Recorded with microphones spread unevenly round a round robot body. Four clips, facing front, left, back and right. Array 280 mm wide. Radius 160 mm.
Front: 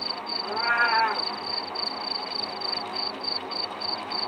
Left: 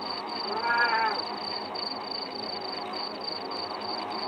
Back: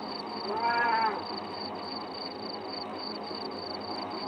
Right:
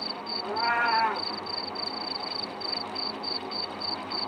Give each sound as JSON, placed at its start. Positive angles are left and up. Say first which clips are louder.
{"t": 0.4, "sound": "a cat meowing", "louder": "right 1 dB, front 2 dB", "azimuth_deg": -155, "distance_m": 1.0}